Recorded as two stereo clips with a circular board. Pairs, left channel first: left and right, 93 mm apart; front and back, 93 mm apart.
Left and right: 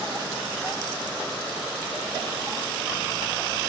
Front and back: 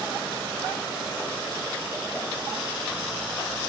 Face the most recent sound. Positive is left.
No sound to turn to.